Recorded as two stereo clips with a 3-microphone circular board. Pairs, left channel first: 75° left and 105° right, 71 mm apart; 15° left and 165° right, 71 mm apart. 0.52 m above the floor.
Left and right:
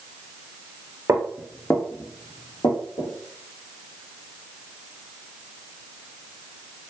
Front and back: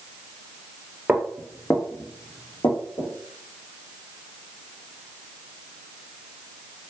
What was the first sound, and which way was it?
Footsteps, 95° right.